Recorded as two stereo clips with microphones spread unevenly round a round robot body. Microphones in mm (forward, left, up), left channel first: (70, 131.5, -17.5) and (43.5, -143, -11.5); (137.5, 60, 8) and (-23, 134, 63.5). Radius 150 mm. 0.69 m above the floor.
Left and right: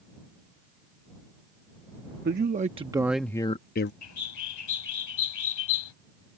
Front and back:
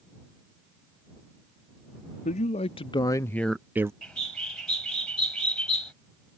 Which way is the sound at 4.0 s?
60° left.